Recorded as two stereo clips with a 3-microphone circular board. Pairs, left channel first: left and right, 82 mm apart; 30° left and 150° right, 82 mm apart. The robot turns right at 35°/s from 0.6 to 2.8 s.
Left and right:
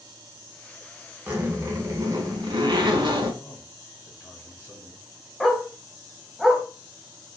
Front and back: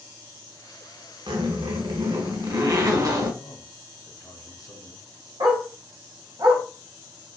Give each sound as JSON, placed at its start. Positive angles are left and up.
{"t": 1.3, "sound": "a zipper", "azimuth_deg": -160, "distance_m": 0.6}
{"t": 3.4, "sound": "a man speaking", "azimuth_deg": 30, "distance_m": 1.1}
{"t": 5.4, "sound": "a dog barking", "azimuth_deg": 180, "distance_m": 0.6}